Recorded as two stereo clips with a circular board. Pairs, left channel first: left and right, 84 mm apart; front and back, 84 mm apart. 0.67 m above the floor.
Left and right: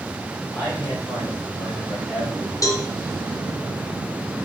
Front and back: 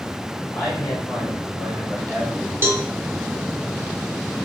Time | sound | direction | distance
0.5 | a man speaking | 55° left | 1.9 m
2.6 | a cowbell | 125° left | 0.6 m